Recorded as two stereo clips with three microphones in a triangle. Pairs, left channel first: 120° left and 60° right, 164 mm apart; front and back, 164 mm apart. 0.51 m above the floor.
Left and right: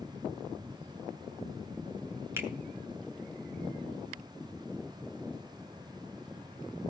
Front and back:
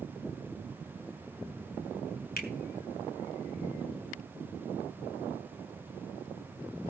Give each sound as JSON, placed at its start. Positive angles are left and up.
{"t": 2.4, "sound": "a finger snap", "azimuth_deg": 15, "distance_m": 2.5}